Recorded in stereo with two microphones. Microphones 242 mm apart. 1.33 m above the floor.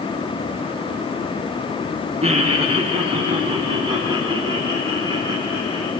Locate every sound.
2.2 s laughter: 25° right (ahead or behind), 1.1 m; by 5.9 s 20° right (ahead or behind), 5.5 m